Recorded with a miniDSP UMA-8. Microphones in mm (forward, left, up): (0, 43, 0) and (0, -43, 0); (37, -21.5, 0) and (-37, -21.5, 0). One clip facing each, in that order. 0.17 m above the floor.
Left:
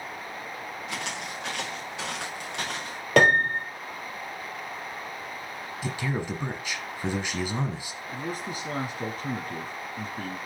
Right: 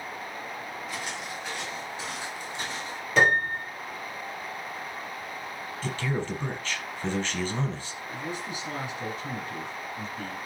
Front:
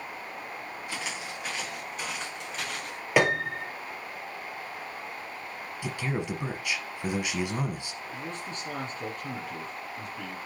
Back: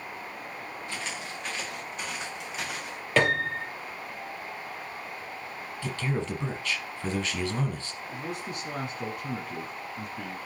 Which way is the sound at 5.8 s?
40° left.